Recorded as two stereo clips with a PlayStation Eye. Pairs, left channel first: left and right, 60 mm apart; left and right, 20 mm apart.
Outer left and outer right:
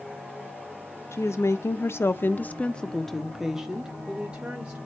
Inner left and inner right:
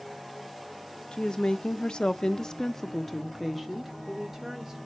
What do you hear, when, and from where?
1.1 s a woman speaking: 50° left (ahead or behind), 1.1 m; by 4.8 s 20° right (ahead or behind), 1.6 m